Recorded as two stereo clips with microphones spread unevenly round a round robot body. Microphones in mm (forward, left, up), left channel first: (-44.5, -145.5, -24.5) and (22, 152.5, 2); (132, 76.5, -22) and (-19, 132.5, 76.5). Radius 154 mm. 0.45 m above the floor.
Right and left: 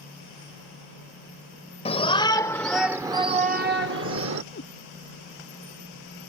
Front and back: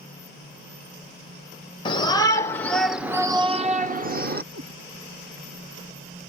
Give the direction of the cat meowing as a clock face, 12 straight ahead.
5 o'clock.